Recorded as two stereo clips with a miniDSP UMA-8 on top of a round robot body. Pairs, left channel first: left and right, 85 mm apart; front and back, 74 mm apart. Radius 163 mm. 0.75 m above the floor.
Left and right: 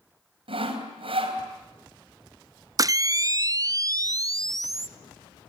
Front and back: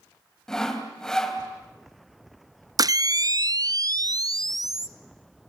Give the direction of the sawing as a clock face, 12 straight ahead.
3 o'clock.